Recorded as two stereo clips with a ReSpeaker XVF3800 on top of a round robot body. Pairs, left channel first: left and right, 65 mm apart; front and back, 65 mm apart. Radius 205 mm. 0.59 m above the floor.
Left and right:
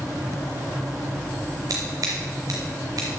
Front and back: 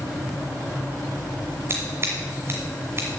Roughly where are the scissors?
Behind right.